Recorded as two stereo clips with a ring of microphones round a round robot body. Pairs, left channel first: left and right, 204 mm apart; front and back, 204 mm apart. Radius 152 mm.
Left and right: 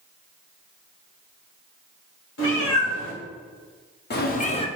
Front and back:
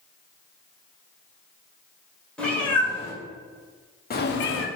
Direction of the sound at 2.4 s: 85° left.